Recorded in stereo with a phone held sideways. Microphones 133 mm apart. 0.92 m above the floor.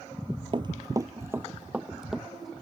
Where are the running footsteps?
40° right (ahead or behind); by 2.5 s centre (ahead or behind).